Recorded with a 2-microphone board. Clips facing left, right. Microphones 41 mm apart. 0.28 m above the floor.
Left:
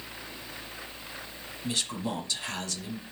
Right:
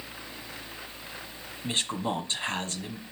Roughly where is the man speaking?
Right.